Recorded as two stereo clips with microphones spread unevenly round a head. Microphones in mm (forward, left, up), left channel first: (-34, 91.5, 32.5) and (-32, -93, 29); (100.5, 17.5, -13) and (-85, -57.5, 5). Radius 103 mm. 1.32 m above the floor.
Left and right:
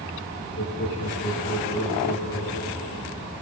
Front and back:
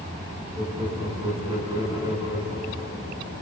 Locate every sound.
0.6 s laughter: 130° left, 9.5 m